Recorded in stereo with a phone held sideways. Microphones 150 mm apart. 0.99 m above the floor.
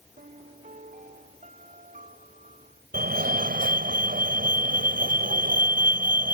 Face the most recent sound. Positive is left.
turn(degrees=-70)  # may be behind; listen again after turning